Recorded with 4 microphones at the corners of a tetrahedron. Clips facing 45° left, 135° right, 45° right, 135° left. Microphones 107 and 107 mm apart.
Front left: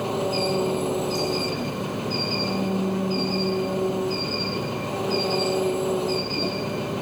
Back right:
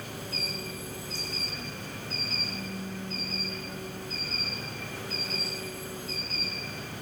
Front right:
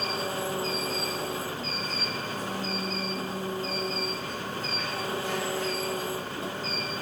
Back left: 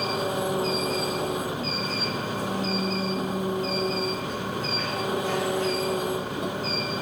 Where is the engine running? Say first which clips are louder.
Front left 16 dB, back left 5 dB; 60° left.